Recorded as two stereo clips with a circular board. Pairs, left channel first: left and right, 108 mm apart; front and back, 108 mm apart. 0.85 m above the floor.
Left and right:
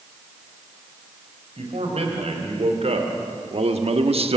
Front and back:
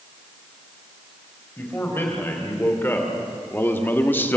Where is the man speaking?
70° right, 4 m.